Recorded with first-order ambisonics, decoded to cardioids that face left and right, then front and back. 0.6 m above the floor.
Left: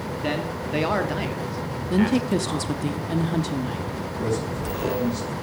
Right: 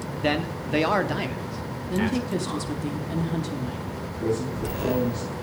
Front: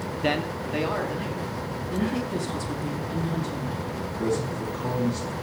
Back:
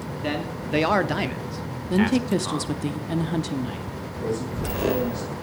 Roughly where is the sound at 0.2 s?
Ahead right.